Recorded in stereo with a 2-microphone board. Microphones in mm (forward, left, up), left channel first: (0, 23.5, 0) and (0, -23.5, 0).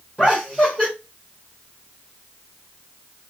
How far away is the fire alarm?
I don't hear a fire alarm.